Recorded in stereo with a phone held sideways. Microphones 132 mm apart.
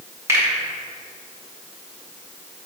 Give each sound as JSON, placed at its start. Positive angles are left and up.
{"t": 0.3, "sound": "a finger snap", "side_deg": -20, "distance_m": 2.0}